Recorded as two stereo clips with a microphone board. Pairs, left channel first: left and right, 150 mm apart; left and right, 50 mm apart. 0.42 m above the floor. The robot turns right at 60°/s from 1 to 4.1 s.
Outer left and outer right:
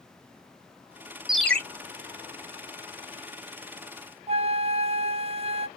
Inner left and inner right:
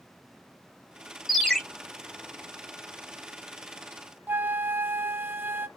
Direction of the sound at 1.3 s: 5° right (ahead or behind).